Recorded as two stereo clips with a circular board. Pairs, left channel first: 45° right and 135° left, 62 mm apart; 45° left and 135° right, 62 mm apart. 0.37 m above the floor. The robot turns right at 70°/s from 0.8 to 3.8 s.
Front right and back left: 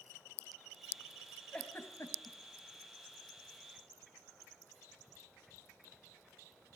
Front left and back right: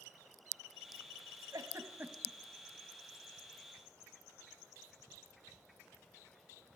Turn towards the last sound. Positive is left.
turn(degrees=40)